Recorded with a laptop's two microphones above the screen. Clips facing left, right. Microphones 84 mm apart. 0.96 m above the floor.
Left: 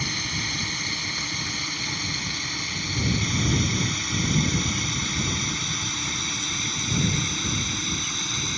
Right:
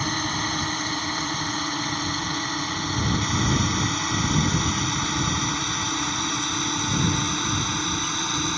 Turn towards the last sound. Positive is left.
turn(degrees=-50)  # may be behind; listen again after turning